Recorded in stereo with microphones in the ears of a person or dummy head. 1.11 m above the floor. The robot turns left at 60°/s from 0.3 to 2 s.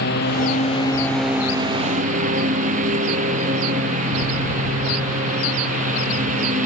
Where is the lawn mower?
55° left; by 6.7 s 45° right.